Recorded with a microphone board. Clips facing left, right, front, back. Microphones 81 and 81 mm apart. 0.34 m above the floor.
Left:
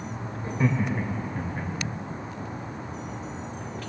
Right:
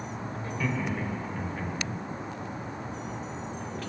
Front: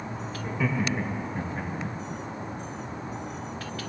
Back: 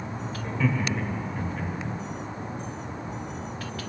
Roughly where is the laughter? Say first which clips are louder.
Left 5 dB, back 1 dB; left.